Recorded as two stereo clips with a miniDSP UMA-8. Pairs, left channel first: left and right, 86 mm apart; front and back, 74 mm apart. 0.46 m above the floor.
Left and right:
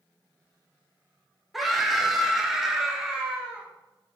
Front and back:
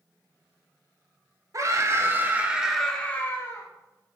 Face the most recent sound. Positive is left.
turn(degrees=-10)